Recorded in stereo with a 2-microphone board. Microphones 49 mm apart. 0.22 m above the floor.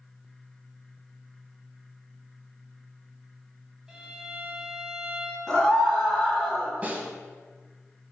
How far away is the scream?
About 1.5 m.